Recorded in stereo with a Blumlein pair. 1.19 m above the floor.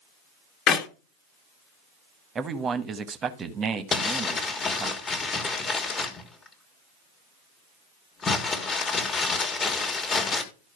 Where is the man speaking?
20° right, 1.2 m.